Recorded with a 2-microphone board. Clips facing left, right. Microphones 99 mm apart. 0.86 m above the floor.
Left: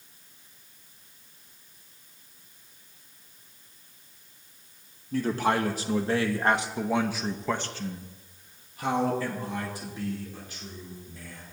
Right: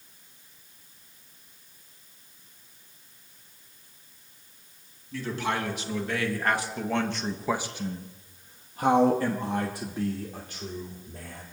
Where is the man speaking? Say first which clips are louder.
Left 5 dB; 45° left (ahead or behind), 1.7 m; by 11.4 s 70° right (ahead or behind), 2.5 m.